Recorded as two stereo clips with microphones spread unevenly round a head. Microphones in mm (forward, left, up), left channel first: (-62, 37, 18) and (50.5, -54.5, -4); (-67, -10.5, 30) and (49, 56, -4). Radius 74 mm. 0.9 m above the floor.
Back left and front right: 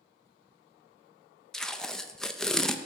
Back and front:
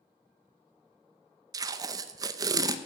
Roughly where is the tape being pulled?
Ahead left.